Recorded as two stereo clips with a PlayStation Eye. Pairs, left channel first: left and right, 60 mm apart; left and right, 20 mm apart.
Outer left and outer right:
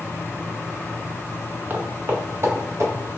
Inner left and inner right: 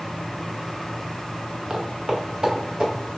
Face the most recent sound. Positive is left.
turn(degrees=-50)  # may be behind; listen again after turning